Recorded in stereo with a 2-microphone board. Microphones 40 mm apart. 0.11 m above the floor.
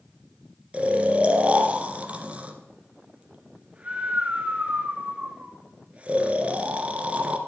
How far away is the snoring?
About 1.6 m.